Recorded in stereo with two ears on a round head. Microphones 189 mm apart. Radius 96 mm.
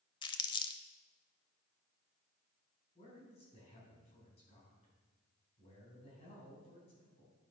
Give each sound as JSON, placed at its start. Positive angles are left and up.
{"t": 0.2, "sound": "crumpling", "side_deg": 25, "distance_m": 0.7}
{"t": 3.0, "sound": "a man speaking", "side_deg": 30, "distance_m": 4.0}